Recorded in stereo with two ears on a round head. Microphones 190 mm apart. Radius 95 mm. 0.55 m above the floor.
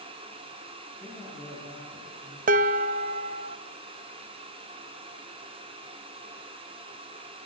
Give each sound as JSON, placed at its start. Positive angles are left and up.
{"t": 1.0, "sound": "a man speaking", "side_deg": -5, "distance_m": 8.5}
{"t": 2.5, "sound": "dishes clattering", "side_deg": -40, "distance_m": 0.5}